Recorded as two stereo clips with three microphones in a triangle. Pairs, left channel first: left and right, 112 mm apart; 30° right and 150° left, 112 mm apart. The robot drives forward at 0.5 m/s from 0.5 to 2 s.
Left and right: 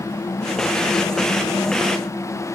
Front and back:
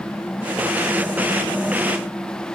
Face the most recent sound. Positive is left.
No sound to turn to.